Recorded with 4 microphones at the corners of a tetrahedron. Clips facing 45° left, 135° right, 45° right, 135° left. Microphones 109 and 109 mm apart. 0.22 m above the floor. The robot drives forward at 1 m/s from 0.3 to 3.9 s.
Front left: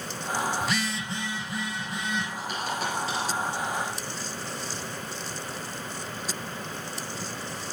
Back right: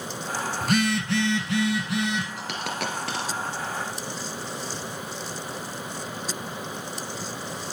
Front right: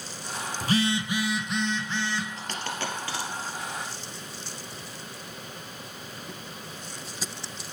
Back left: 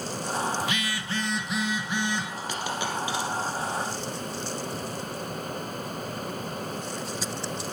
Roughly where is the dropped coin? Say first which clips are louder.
Even, back left 3 dB; behind right.